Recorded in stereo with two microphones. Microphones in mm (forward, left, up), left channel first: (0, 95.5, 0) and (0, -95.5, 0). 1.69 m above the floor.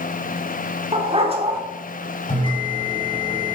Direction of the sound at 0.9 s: 35° right (ahead or behind).